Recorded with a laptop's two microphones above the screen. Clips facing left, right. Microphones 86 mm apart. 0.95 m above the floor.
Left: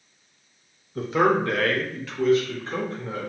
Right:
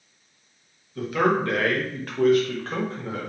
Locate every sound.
0.9 s a man speaking: 30° left (ahead or behind), 0.7 m; by 3.3 s 80° right, 1.3 m